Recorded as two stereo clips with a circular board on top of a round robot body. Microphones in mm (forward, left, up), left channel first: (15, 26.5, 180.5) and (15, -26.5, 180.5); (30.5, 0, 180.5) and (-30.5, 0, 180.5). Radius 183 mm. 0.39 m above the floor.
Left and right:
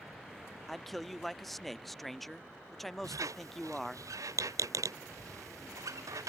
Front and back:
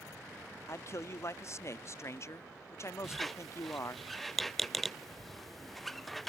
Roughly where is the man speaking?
Ahead.